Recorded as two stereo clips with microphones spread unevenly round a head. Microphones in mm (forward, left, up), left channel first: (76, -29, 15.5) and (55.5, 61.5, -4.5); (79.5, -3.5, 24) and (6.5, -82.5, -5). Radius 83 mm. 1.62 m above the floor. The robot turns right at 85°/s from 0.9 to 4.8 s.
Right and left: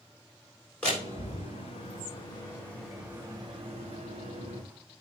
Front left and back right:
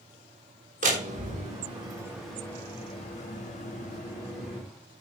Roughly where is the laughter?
No laughter in this recording.